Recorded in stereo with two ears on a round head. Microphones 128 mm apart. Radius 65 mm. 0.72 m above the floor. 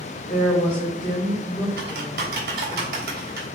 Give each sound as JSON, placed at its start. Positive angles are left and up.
{"t": 0.3, "sound": "a woman speaking", "side_deg": 25, "distance_m": 3.0}
{"t": 1.8, "sound": "typing on a keyboard", "side_deg": -80, "distance_m": 3.5}